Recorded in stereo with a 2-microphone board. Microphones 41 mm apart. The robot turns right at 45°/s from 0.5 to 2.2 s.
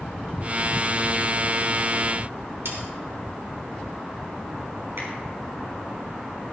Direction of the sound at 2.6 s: 70° right (ahead or behind).